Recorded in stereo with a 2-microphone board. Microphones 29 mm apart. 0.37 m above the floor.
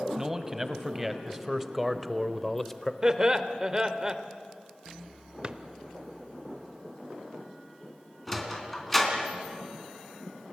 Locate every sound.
0.2 s a man speaking: 15° right (ahead or behind), 2 m; by 2.9 s 15° left (ahead or behind), 1.1 m
3.0 s laughter: 25° right (ahead or behind), 1.4 m
5.4 s a drawer: 35° right (ahead or behind), 0.8 m
8.3 s a sliding door: 10° left (ahead or behind), 3 m